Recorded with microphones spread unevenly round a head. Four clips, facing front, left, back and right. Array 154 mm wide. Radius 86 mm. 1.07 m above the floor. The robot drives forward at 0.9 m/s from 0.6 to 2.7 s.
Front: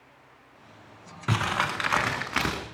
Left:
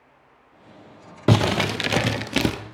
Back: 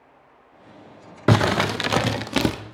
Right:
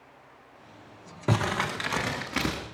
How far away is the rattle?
I don't hear a rattle.